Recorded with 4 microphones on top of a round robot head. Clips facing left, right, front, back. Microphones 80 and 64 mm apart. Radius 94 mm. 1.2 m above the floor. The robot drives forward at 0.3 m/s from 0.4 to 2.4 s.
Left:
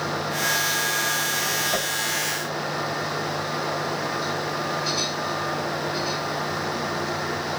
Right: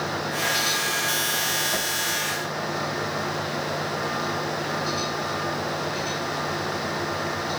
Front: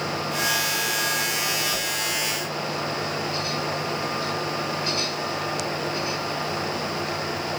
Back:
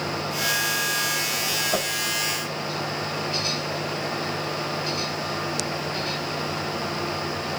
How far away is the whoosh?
About 1.6 m.